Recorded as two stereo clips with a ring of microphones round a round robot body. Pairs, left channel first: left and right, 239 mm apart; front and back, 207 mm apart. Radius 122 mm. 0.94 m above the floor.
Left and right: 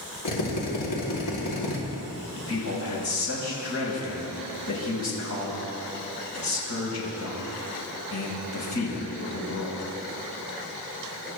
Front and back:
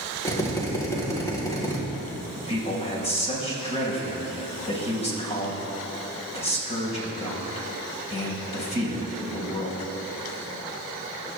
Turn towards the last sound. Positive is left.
turn(degrees=60)